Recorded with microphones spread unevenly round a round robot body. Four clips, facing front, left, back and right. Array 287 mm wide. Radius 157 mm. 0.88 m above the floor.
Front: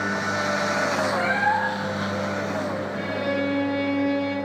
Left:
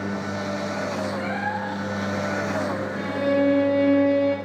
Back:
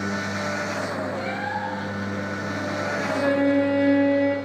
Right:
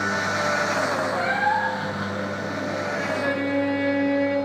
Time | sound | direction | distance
1.1 | a cat meowing | 65° right | 5.5 m
2.9 | a violin | 140° left | 5 m